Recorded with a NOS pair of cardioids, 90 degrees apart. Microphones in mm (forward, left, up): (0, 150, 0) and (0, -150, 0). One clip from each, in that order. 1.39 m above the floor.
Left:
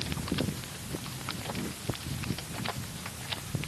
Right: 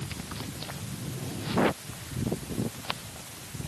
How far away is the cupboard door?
No cupboard door in this recording.